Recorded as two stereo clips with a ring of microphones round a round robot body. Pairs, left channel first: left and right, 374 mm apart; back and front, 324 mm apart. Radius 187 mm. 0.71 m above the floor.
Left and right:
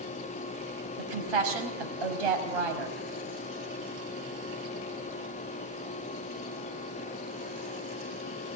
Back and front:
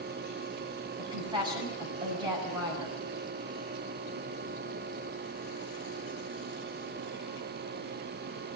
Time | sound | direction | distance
1.0 | a woman speaking | 80° right | 5 m